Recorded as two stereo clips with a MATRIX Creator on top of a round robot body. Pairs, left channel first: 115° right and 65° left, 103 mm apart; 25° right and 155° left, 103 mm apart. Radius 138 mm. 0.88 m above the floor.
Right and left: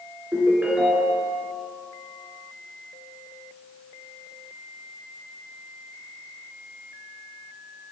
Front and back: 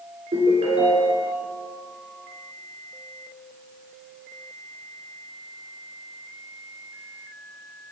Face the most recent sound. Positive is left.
turn(degrees=145)